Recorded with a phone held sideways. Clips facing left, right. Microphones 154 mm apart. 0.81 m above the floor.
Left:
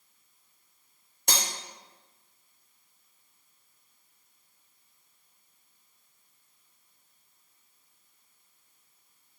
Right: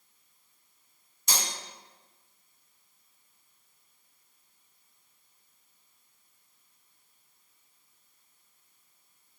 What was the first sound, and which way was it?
Cutlery clinking, 65° left (ahead or behind).